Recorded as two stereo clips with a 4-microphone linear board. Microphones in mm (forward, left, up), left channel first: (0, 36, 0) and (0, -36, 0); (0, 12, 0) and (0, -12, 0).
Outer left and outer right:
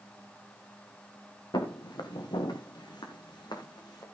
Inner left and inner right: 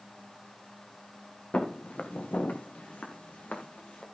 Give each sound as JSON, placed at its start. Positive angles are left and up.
{"t": 1.5, "sound": "footsteps", "side_deg": 75, "distance_m": 2.5}